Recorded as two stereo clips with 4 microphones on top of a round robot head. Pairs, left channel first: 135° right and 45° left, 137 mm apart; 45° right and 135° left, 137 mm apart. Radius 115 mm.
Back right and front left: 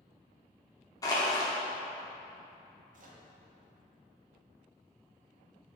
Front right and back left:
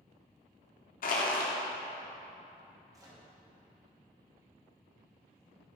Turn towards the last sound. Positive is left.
turn(degrees=70)